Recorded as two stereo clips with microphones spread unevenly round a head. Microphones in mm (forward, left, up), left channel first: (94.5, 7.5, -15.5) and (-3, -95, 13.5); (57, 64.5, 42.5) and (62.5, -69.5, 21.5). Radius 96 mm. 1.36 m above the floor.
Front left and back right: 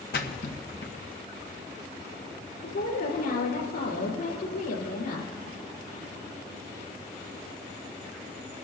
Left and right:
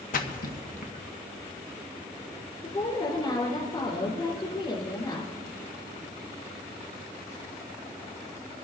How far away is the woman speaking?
About 4 m.